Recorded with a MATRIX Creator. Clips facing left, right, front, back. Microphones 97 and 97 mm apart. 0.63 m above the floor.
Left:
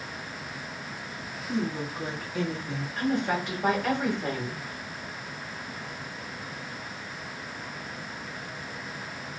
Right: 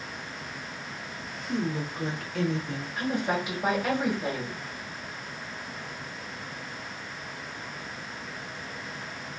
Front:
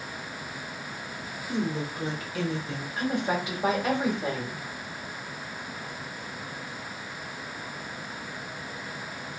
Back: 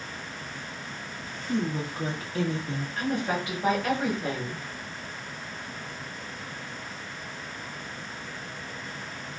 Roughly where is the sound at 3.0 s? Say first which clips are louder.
Left 1 dB, front 1 dB; ahead right.